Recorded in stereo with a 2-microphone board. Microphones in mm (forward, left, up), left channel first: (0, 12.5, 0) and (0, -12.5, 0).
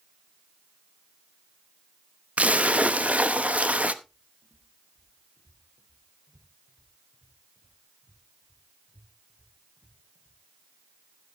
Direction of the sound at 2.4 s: 60° right (ahead or behind).